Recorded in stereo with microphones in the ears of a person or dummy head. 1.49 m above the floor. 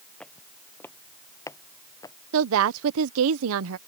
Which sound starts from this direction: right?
A woman speaking, at 2.3 s.